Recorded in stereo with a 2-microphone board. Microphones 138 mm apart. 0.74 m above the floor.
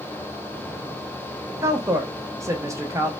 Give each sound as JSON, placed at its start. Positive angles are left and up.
{"t": 1.6, "sound": "a woman speaking", "side_deg": -20, "distance_m": 0.6}